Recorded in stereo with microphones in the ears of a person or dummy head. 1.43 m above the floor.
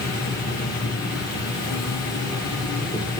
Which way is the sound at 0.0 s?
20° left (ahead or behind).